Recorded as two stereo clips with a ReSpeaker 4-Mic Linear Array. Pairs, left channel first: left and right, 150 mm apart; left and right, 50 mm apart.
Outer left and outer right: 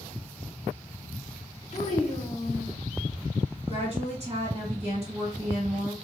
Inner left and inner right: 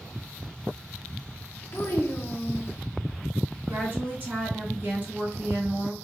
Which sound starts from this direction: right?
A woman speaking, at 3.7 s.